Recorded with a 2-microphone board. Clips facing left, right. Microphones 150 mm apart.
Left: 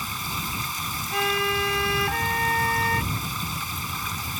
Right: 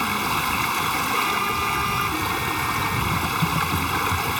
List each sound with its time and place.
0.0 s running water: 75° right (ahead or behind)
1.1 s a violin: 75° left (ahead or behind)
3.1 s typing on a keyboard: 45° right (ahead or behind)